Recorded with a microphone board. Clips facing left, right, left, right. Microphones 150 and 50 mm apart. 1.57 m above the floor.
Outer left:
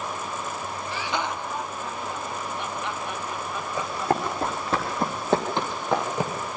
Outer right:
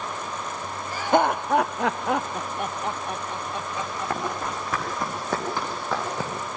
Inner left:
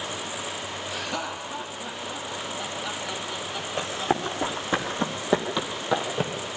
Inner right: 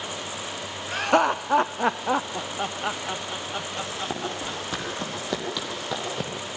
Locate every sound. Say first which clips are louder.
0.9 s laughter: outer right 10 dB, inner right 13 dB; 45° right (ahead or behind), 0.8 m; by 4.8 s 15° right (ahead or behind), 1.6 m
3.8 s running footsteps: outer left 5 dB, inner left 8 dB; 35° left (ahead or behind), 4 m; by 6.3 s 15° left (ahead or behind), 2.5 m